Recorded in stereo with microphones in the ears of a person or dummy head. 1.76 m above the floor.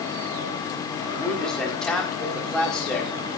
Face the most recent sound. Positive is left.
turn(degrees=5)  # may be behind; listen again after turning